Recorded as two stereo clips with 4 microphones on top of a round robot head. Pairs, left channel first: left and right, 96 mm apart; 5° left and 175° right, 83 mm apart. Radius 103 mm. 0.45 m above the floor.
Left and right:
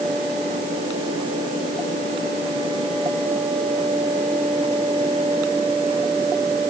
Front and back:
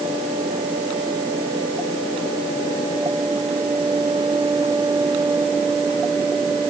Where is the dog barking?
No dog barking in this recording.